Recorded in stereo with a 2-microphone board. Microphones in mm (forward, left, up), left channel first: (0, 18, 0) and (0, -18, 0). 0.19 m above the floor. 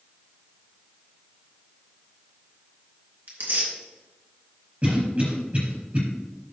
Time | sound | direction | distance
3.3 | tearing paper | 60° right (ahead or behind) | 3 m
4.8 | a cough | 35° right (ahead or behind) | 4.5 m